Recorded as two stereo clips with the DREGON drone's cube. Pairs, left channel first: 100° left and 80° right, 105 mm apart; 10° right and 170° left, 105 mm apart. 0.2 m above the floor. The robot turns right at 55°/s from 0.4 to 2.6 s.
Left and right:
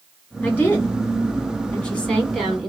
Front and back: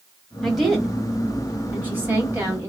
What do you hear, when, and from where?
0.4 s a woman speaking: 70° left, 1.4 m; by 2.7 s 170° right, 1.4 m